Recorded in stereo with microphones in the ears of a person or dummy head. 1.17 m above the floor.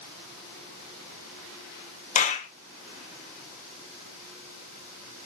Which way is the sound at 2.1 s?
30° left (ahead or behind).